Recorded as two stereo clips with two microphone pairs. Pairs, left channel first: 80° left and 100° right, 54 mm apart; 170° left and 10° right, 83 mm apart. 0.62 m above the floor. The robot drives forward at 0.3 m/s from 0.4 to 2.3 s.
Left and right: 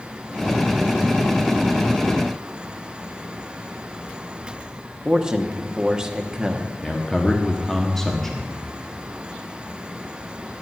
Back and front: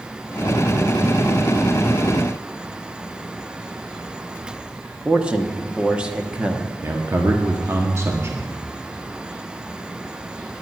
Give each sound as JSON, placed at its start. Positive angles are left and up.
{"t": 5.0, "sound": "a man speaking", "azimuth_deg": -65, "distance_m": 1.1}
{"t": 6.8, "sound": "a man speaking", "azimuth_deg": 5, "distance_m": 1.2}